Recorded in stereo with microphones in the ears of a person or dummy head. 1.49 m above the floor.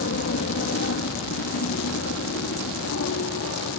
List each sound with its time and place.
0.0 s an aircraft: 55° left (ahead or behind); by 3.8 s 70° left (ahead or behind)